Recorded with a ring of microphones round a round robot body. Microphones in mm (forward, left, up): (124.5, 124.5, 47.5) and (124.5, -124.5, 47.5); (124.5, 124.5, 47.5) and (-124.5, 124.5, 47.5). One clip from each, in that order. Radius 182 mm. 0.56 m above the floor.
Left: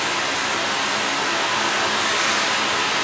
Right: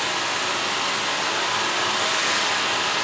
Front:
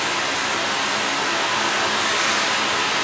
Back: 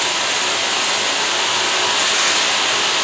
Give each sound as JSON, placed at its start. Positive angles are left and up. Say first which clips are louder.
{"t": 0.0, "sound": "running water", "louder": "left 2 dB, back 3 dB", "azimuth_deg": -165, "distance_m": 2.5}